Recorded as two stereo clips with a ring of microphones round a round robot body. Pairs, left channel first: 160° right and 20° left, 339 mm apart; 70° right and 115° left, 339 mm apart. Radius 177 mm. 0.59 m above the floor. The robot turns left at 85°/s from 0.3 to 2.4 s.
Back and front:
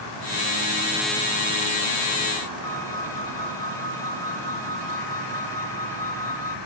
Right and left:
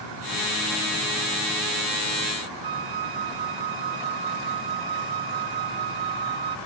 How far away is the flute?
About 0.6 m.